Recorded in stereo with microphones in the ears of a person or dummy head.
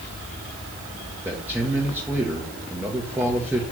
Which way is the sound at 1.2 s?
10° right (ahead or behind).